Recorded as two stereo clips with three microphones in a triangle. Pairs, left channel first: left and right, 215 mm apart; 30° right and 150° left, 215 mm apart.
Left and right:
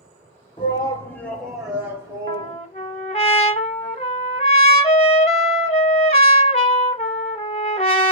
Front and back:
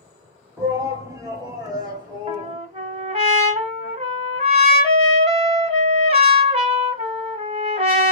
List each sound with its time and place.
0.6 s a shout: 95° left, 1.1 m; by 2.6 s 150° right, 1.3 m
2.3 s a trumpet: 120° left, 0.8 m